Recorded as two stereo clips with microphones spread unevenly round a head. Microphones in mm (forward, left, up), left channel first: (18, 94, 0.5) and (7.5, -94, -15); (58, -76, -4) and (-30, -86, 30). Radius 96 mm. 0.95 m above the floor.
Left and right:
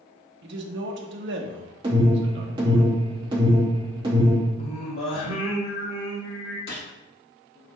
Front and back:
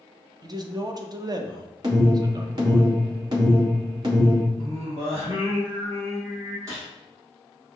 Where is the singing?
110° left, 1.8 m.